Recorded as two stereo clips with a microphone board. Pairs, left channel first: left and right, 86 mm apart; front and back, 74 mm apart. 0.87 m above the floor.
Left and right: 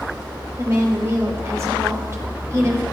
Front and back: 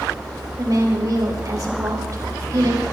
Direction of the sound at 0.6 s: 145° right.